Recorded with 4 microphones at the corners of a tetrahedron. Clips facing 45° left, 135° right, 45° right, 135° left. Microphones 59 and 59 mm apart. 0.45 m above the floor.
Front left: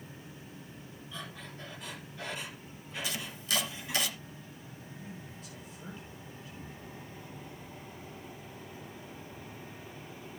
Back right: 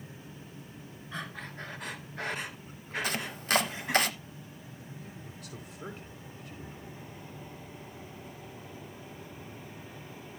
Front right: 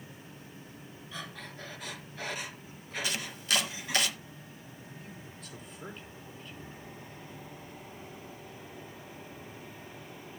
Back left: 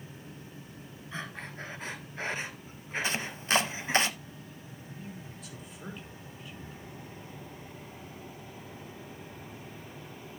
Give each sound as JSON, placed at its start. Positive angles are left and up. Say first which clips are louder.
{"t": 1.1, "sound": "breathing", "louder": "back right 5 dB, back left 4 dB", "azimuth_deg": -170, "distance_m": 1.7}
{"t": 3.0, "sound": "chopping", "louder": "back right 4 dB, back left 2 dB", "azimuth_deg": -170, "distance_m": 0.9}
{"t": 4.9, "sound": "a man speaking", "louder": "front left 1 dB, back left 4 dB", "azimuth_deg": -140, "distance_m": 4.5}